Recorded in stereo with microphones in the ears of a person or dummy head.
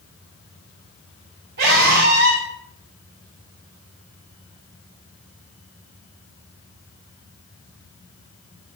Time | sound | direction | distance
1.6 | a scream | 65° right (ahead or behind) | 8.5 m